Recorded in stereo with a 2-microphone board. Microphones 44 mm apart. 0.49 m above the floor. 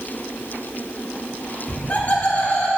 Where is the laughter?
30° left (ahead or behind), 1.3 m; by 2.7 s 35° left (ahead or behind), 1.5 m.